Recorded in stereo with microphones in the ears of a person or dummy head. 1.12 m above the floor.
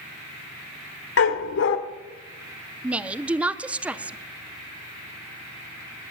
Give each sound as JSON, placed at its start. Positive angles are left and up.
{"t": 1.2, "sound": "a dog barking", "side_deg": 70, "distance_m": 1.5}
{"t": 2.8, "sound": "a woman speaking", "side_deg": -10, "distance_m": 0.5}